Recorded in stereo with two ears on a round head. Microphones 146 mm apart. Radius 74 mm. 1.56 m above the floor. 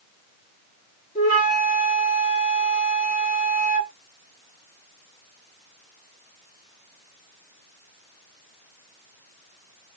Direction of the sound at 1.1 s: 45° left (ahead or behind).